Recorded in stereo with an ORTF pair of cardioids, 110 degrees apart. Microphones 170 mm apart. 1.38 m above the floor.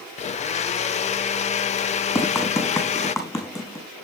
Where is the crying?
No crying in this recording.